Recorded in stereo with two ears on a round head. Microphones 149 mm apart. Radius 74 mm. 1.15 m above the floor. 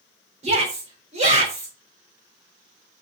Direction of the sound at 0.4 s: 40° right (ahead or behind).